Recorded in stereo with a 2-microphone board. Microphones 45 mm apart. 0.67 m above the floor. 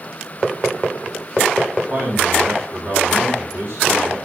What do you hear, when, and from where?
1.9 s a man speaking: 55° right (ahead or behind), 5 m